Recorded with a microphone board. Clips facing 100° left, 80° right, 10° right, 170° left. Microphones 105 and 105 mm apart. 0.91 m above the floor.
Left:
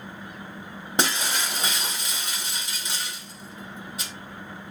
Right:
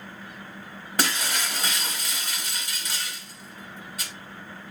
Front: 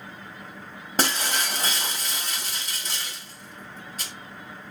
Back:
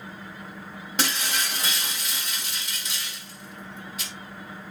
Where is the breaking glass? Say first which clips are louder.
Left 2 dB, front 3 dB; 35° left, 1.3 m.